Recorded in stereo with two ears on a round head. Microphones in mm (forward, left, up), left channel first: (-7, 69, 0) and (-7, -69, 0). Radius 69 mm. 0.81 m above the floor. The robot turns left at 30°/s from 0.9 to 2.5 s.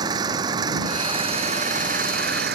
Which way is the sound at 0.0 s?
25° right.